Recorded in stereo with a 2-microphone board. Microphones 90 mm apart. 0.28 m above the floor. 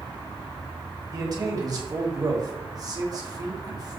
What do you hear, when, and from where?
1.1 s a man speaking: 40° right (ahead or behind), 2 m